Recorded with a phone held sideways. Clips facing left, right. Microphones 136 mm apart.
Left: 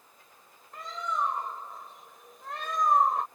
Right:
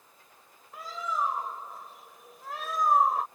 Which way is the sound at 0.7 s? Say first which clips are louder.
Even; 5° right (ahead or behind).